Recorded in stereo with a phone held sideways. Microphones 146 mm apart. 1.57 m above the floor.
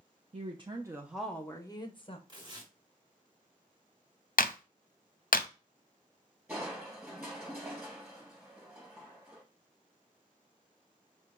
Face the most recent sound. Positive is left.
turn(degrees=-10)  # may be behind; listen again after turning